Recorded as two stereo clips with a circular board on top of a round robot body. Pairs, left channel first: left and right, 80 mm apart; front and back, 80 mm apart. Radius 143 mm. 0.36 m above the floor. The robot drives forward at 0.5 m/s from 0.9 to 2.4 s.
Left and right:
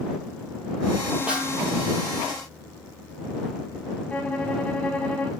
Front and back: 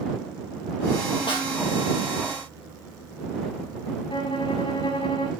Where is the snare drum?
15° right, 2.5 m.